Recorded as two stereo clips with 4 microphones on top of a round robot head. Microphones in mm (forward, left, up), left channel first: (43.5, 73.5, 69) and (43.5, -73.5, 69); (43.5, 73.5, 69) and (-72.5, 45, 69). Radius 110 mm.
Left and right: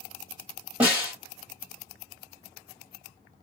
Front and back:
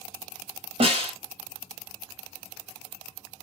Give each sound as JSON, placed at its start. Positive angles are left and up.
{"t": 0.8, "sound": "a snare drum", "azimuth_deg": -165, "distance_m": 1.4}